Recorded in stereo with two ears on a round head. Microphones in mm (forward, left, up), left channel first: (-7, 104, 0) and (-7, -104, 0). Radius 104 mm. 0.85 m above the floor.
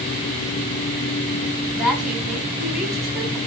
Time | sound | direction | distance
1.7 | a woman speaking | centre (ahead or behind) | 3 m